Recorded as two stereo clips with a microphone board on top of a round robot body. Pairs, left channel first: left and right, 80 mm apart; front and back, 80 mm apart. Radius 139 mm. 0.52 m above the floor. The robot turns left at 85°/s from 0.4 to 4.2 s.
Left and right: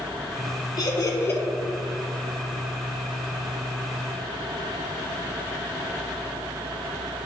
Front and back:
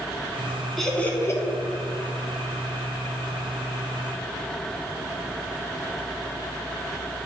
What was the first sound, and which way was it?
Laughter, 85° left.